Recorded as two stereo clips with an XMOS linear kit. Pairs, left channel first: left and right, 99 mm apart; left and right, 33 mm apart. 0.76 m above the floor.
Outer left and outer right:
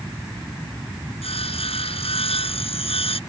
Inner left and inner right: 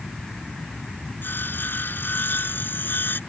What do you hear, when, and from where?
1.2 s sawing: 80° left